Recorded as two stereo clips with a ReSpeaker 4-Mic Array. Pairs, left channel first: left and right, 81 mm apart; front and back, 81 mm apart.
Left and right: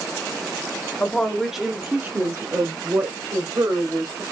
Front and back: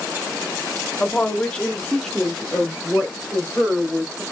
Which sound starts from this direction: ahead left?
A woman speaking, at 1.0 s.